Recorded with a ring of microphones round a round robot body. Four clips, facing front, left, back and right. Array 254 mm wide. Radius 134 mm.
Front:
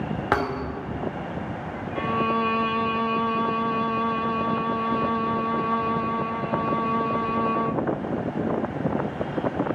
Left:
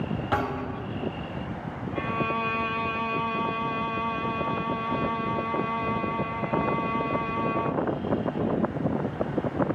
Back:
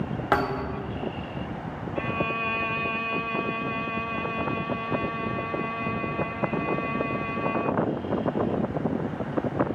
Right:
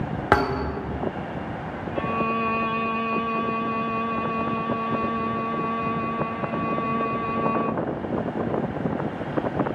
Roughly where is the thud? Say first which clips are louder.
Right 8 dB, back 1 dB; right.